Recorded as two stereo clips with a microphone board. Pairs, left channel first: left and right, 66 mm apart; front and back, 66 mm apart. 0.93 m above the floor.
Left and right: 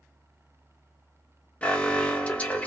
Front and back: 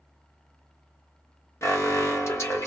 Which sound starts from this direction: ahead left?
An alarm, at 1.6 s.